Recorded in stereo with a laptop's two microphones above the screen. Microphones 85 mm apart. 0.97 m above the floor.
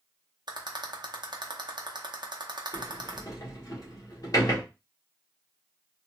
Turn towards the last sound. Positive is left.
turn(degrees=45)  # may be behind; listen again after turning